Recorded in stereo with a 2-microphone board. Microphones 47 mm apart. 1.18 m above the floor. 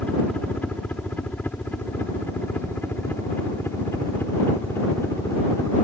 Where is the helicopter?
35° left (ahead or behind); by 5.8 s 60° left (ahead or behind).